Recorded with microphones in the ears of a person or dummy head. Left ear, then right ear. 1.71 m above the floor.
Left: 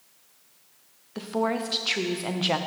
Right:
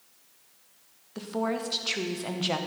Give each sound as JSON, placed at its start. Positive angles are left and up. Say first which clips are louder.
{"t": 1.1, "sound": "a woman speaking", "louder": "left 3 dB", "side_deg": 10, "distance_m": 0.9}